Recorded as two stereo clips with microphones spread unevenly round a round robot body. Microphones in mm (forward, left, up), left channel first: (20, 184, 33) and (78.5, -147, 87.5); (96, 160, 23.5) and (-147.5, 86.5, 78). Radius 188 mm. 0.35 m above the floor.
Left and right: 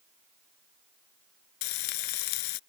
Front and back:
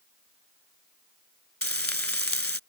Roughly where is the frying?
Left.